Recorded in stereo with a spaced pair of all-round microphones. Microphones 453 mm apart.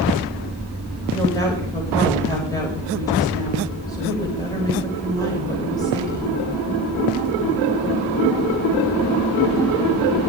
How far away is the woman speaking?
About 7 m.